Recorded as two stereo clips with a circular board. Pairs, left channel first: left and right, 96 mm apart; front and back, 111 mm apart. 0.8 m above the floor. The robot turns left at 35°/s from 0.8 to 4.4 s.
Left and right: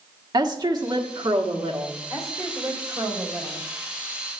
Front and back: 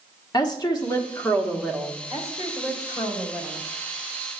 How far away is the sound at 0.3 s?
About 1.4 m.